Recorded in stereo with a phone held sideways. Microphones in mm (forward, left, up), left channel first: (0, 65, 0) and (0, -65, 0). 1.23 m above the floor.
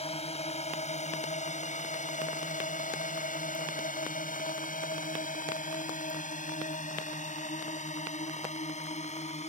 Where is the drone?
50° left (ahead or behind); by 9.5 s 55° left (ahead or behind).